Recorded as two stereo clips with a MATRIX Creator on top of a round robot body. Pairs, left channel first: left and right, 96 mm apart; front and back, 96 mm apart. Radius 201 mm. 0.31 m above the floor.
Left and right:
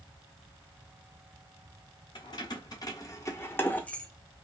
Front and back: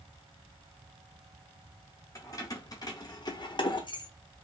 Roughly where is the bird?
I don't hear a bird.